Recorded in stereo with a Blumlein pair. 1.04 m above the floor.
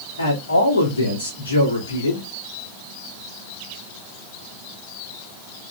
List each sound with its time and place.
0.2 s a man speaking: 70° left, 2 m